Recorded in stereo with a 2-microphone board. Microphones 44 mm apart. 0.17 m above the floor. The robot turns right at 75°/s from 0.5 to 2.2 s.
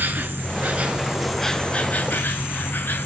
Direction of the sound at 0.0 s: 60° right.